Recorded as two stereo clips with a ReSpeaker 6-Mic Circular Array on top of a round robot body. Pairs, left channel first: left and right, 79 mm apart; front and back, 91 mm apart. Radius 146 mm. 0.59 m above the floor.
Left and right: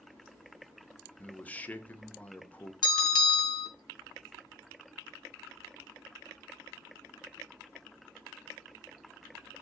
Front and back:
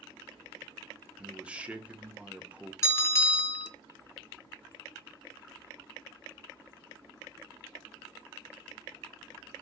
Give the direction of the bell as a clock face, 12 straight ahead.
10 o'clock.